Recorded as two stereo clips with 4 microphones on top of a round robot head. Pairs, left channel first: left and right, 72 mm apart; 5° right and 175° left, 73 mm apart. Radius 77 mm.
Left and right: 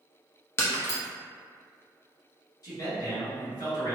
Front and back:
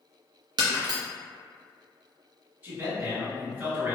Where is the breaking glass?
145° left, 0.5 m.